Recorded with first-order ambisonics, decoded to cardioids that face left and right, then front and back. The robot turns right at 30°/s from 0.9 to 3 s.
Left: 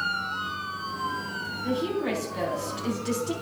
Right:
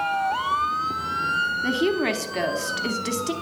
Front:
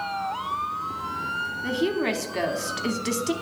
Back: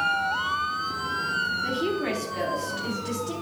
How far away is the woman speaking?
About 0.9 m.